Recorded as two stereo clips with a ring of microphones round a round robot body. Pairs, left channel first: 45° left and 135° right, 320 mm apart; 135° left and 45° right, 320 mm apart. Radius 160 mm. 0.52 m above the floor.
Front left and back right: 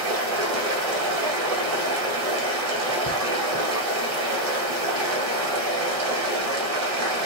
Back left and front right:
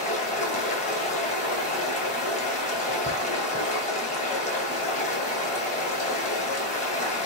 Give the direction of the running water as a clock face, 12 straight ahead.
5 o'clock.